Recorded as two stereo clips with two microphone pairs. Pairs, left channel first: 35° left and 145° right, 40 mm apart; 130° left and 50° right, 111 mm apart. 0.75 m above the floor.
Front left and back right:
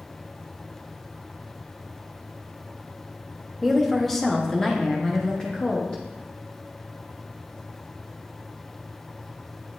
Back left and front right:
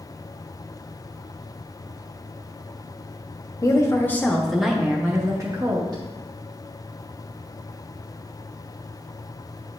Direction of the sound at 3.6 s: 120° left.